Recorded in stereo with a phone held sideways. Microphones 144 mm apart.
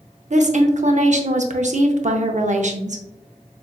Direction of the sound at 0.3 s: 65° right (ahead or behind).